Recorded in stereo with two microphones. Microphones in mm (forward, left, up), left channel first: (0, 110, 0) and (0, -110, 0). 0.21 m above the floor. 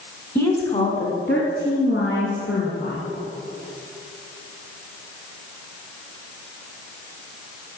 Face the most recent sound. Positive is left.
turn(degrees=65)  # may be behind; listen again after turning